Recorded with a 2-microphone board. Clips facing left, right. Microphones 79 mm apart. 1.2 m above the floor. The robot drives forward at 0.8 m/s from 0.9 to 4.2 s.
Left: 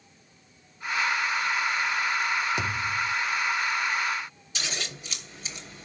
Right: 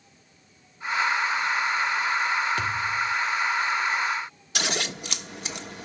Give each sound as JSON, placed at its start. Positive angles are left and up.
{"t": 2.6, "sound": "a thud", "side_deg": 20, "distance_m": 1.5}
{"t": 4.5, "sound": "scissors", "side_deg": -65, "distance_m": 1.3}